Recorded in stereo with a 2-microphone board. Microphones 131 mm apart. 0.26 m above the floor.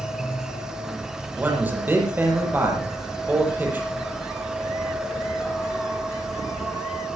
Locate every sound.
0.0 s an insect: 5° right (ahead or behind), 3 m
1.4 s a man speaking: 15° right (ahead or behind), 7 m